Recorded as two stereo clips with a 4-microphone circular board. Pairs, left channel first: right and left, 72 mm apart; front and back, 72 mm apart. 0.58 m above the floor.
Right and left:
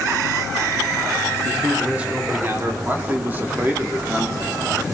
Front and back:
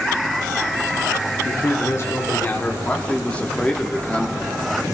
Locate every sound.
1.4 s a man speaking: straight ahead, 2.0 m; by 2.7 s 65° left, 2.0 m
2.8 s a man speaking: 55° left, 1.3 m